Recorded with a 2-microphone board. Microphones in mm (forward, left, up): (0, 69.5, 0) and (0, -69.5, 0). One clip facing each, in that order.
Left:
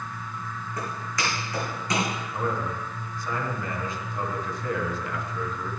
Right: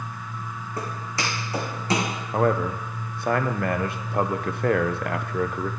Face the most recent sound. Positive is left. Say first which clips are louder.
# right 9 dB
turn(degrees=-65)  # may be behind; listen again after turning